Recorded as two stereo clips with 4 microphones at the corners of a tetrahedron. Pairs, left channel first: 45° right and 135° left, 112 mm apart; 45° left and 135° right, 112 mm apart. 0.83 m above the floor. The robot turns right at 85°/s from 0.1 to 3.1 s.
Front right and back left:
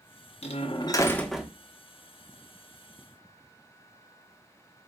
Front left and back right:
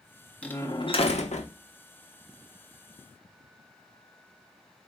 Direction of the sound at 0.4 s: 35° right.